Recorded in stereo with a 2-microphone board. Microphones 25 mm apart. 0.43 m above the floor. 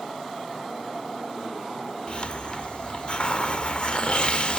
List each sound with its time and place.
2.1 s a hiss: 45° left (ahead or behind)